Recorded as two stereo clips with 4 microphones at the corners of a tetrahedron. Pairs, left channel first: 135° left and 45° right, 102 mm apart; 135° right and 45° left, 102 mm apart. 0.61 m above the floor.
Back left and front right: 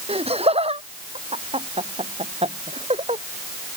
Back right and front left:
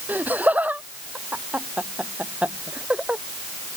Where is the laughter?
30° right; by 3.2 s 35° right.